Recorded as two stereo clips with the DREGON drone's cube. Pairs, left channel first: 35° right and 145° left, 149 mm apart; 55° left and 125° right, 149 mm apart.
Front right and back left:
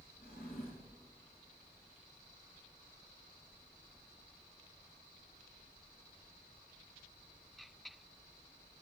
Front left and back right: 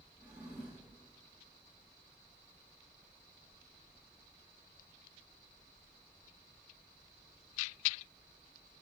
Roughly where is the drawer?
Ahead right.